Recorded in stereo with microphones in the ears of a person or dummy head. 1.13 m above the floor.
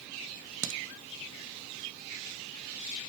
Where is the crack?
70° right (ahead or behind), 1.7 m.